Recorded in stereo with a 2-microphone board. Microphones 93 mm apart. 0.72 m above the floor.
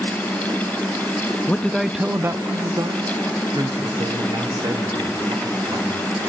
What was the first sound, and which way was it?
A man speaking, 20° left (ahead or behind).